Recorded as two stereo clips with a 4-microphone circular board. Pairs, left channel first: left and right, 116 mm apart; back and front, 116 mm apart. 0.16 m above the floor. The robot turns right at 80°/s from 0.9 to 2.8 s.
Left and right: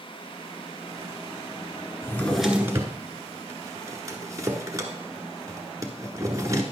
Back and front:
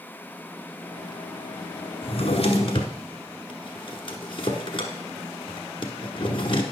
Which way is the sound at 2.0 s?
150° left.